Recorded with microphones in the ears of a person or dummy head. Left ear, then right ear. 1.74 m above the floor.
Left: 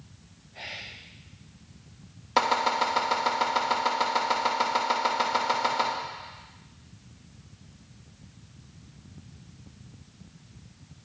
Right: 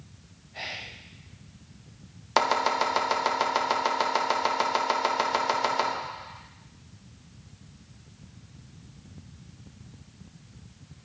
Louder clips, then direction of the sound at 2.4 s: Even; 30° right (ahead or behind).